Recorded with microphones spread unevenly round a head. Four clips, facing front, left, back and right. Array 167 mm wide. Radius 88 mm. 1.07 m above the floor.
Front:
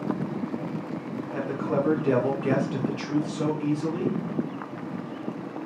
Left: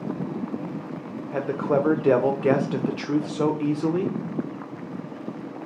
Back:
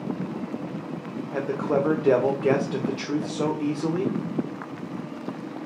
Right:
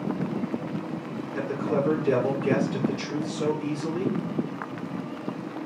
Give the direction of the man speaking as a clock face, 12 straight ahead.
8 o'clock.